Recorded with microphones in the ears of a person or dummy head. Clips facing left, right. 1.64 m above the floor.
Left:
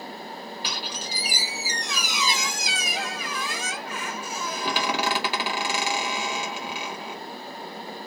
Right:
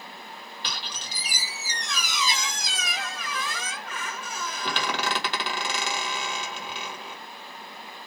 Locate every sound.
0.6 s a squeak: 10° left (ahead or behind), 1.4 m